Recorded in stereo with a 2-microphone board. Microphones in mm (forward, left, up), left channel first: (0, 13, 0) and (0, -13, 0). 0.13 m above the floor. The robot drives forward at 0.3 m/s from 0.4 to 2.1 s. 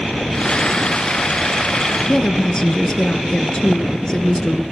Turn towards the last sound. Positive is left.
turn(degrees=30)  # may be behind; listen again after turning